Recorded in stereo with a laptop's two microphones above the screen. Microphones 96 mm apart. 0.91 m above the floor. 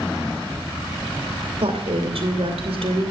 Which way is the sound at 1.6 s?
75° right (ahead or behind).